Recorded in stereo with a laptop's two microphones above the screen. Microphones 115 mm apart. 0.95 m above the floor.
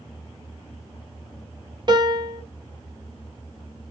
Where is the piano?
40° right (ahead or behind), 0.6 m.